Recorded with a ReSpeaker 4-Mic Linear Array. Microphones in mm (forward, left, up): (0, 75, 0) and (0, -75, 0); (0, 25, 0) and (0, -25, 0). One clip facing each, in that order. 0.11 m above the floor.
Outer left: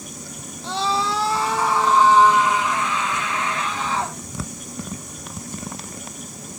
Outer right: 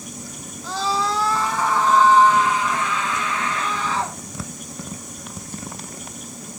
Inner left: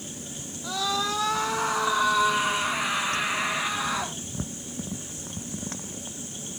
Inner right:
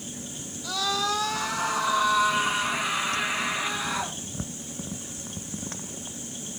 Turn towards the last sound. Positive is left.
turn(degrees=40)  # may be behind; listen again after turning